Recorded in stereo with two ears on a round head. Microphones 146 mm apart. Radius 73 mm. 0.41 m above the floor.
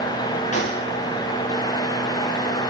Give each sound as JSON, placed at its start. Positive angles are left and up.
{"t": 0.5, "sound": "a gunshot", "side_deg": 50, "distance_m": 9.5}